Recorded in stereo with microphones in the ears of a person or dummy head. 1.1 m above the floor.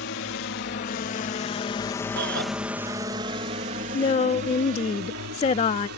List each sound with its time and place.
0.0 s a drone: 55° left (ahead or behind); by 6.0 s 60° right (ahead or behind)
2.2 s a shout: 60° right (ahead or behind)
3.9 s a woman speaking: 30° left (ahead or behind)